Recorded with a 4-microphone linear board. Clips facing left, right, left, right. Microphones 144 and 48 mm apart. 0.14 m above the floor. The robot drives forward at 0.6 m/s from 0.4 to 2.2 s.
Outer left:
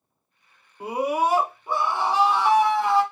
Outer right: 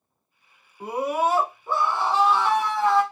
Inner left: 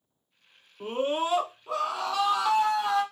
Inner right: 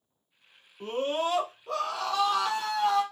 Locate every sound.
0.8 s a scream: 10° left (ahead or behind), 1.2 m